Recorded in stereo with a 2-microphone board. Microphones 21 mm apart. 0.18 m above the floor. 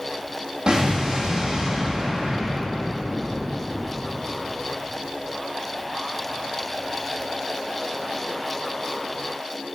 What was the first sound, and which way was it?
An explosion, 35° right (ahead or behind).